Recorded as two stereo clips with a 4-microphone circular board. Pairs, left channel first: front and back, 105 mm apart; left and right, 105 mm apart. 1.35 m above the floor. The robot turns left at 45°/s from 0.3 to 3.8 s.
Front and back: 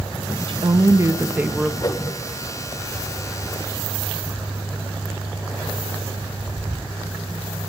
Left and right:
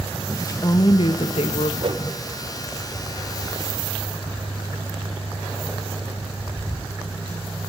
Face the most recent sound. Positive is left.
turn(degrees=-140)